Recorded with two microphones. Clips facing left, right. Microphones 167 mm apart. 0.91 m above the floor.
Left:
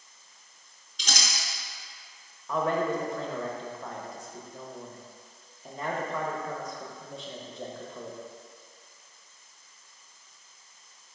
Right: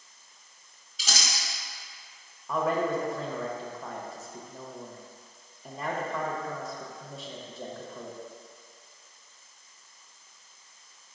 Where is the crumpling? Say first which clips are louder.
Even; 5° right (ahead or behind), 1.6 m.